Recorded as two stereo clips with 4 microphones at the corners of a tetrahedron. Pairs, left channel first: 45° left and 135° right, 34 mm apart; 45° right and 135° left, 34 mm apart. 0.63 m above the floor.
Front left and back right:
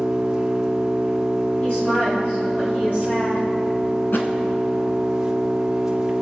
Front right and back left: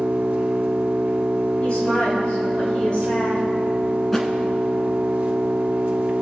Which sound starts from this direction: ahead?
A woman speaking, at 1.6 s.